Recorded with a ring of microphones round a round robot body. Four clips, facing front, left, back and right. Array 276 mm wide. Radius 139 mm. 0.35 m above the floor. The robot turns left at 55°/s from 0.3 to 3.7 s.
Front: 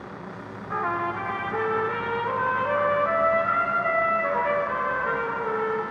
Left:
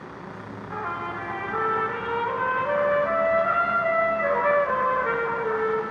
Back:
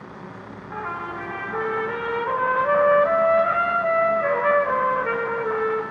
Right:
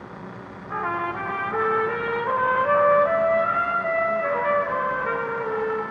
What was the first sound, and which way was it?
A trumpet, 35° right.